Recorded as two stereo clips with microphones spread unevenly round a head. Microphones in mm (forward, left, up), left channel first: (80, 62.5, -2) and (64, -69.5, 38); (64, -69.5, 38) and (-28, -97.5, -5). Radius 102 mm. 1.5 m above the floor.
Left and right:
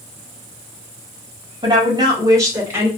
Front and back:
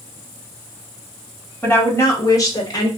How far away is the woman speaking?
About 1.7 m.